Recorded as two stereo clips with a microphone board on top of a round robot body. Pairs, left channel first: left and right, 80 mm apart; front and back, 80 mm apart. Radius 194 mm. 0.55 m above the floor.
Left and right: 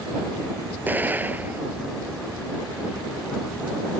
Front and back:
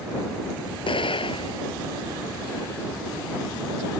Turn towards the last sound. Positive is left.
turn(degrees=-20)